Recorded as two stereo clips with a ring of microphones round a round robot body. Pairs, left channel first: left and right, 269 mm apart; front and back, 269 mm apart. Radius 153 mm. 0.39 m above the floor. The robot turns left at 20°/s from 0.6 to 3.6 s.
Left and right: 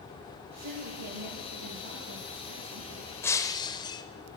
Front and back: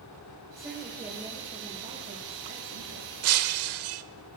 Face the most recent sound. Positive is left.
turn(degrees=165)